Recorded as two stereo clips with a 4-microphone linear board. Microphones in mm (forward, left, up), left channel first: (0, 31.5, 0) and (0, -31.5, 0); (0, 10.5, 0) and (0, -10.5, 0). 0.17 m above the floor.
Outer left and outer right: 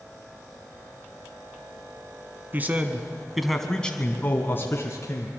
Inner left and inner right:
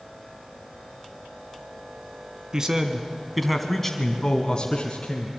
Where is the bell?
I don't hear a bell.